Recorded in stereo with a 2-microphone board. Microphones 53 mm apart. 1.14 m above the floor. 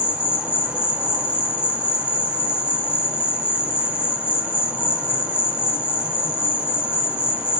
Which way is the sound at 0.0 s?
25° right (ahead or behind).